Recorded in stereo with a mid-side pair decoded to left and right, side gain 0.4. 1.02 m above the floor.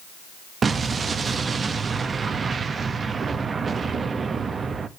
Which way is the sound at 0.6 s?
45° right.